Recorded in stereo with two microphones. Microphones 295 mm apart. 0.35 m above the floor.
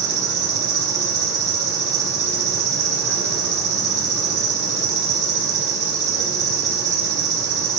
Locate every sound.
0.0 s an insect: 55° right (ahead or behind), 0.8 m